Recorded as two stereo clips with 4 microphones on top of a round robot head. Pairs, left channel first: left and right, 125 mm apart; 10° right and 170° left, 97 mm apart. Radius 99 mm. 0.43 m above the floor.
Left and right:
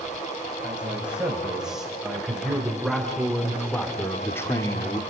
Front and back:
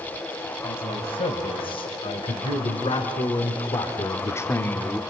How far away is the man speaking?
About 3.5 m.